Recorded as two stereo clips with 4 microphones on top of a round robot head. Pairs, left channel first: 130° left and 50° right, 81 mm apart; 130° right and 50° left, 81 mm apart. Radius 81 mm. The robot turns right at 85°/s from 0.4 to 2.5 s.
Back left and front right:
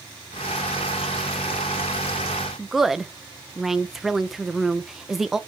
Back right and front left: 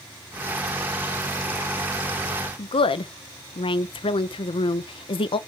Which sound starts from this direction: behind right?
A woman speaking, at 2.6 s.